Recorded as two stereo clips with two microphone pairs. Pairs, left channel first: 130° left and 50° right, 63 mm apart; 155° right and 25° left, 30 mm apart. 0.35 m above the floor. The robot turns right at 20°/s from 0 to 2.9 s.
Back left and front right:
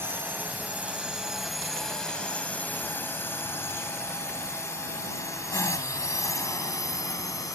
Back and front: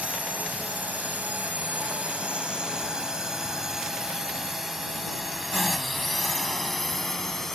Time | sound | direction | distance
0.0 | a drone | 5° right | ?